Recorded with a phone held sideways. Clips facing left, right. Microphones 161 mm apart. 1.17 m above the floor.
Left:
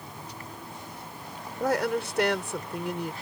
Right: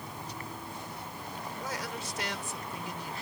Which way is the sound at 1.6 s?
70° left (ahead or behind).